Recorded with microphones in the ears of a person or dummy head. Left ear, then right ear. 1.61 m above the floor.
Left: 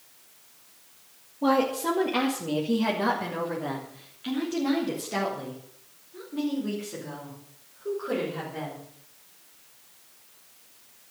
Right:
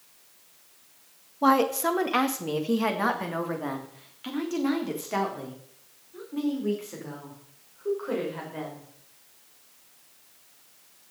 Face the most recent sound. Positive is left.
turn(degrees=-30)  # may be behind; listen again after turning